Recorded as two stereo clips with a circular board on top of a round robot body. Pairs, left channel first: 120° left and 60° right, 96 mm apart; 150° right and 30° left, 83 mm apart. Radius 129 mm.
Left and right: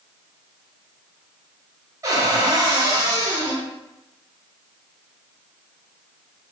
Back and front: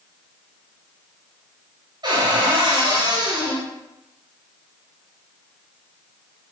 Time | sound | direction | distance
2.0 | a cupboard door | 5° right | 1.9 m